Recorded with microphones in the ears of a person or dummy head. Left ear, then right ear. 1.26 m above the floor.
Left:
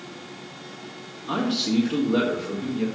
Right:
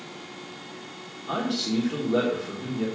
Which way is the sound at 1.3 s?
Centre (ahead or behind).